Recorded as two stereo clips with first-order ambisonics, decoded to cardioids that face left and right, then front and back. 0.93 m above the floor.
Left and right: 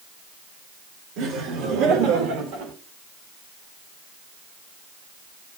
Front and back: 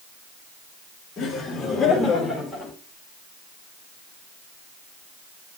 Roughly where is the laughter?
Right.